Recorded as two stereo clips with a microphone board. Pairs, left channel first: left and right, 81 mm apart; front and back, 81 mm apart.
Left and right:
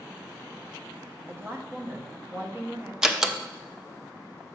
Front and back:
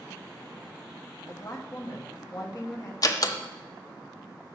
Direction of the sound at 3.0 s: 10° right.